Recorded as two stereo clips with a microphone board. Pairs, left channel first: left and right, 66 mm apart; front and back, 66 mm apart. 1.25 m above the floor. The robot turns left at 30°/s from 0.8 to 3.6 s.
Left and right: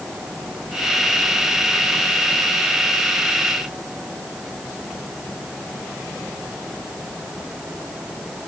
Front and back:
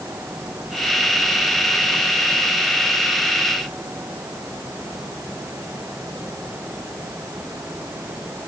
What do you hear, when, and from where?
Only background noise.